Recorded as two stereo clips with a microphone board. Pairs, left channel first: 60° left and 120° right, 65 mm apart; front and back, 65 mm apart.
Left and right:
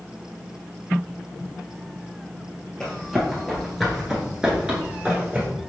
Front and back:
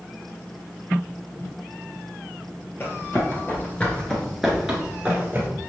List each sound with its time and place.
2.8 s running footsteps: 20° right, 1.8 m; by 5.5 s 170° right, 1.5 m